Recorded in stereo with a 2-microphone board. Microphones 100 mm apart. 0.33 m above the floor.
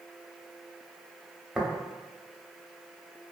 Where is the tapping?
5° right (ahead or behind), 0.7 m.